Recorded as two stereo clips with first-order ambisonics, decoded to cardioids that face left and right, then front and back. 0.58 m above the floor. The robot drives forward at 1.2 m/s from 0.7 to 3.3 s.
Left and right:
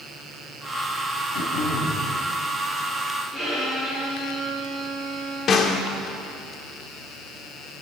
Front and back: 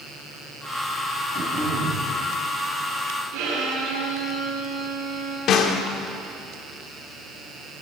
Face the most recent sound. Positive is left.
turn(degrees=40)